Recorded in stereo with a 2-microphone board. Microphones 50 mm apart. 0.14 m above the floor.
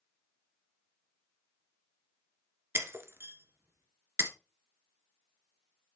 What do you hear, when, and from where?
2.8 s breaking glass: 50° right (ahead or behind), 1.4 m